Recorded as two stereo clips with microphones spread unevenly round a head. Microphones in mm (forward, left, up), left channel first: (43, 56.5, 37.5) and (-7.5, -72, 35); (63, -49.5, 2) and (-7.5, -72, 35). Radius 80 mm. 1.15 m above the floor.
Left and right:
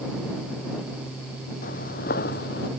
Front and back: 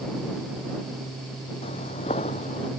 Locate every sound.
1.6 s footsteps: 40° left; by 2.7 s 60° left